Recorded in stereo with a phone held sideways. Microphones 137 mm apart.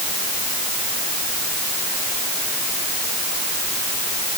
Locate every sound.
Only background noise.